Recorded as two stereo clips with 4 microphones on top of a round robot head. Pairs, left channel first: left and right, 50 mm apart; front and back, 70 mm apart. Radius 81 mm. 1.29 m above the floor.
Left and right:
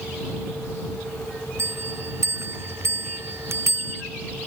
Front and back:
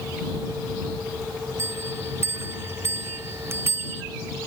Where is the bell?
125° right.